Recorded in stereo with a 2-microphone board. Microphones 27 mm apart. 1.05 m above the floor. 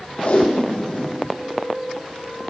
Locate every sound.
0.2 s tape being pulled: 60° left (ahead or behind), 1.4 m